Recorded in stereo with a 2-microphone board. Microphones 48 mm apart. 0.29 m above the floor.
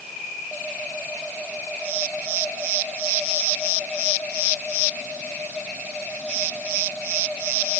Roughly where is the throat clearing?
I don't hear throat clearing.